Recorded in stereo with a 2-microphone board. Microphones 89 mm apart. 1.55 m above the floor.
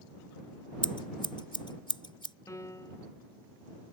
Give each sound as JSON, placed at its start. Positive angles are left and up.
{"t": 0.8, "sound": "scissors", "side_deg": 65}
{"t": 2.5, "sound": "a piano", "side_deg": 35}